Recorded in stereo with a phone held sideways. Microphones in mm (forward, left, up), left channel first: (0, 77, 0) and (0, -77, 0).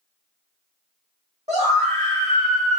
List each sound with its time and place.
1.5 s a scream: 45° right (ahead or behind), 1.5 m; by 2.8 s 55° right (ahead or behind), 0.9 m